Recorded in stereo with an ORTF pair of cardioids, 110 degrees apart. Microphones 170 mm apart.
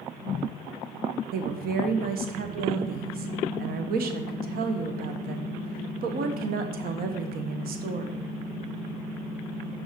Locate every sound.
1.3 s a woman speaking: 60° right, 1.1 m